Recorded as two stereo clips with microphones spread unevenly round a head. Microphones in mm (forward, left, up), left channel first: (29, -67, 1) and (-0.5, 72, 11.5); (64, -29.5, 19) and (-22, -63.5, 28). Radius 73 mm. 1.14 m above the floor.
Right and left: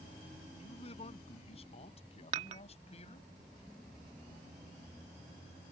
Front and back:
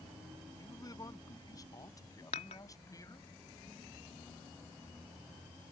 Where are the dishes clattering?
55° left.